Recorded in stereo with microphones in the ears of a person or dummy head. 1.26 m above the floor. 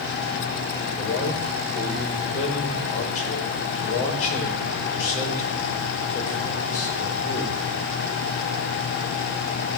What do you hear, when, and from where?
1.0 s a man speaking: 35° left (ahead or behind), 5 m